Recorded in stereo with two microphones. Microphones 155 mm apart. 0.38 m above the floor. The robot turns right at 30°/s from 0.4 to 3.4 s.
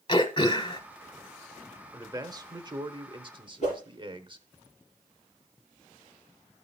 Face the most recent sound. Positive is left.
turn(degrees=50)  # may be behind; listen again after turning